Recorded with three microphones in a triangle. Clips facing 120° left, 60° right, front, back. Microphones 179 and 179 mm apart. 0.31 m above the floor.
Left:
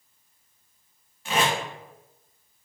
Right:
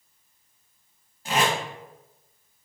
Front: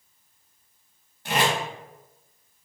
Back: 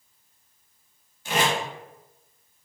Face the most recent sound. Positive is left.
turn(degrees=-15)